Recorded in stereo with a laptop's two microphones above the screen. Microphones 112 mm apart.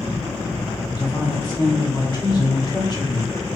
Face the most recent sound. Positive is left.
turn(degrees=40)  # may be behind; listen again after turning